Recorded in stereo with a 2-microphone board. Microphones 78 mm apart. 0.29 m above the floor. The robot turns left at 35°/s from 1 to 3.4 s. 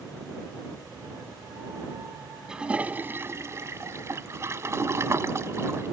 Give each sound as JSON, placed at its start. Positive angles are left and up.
{"t": 2.5, "sound": "a toilet flushing", "azimuth_deg": -10}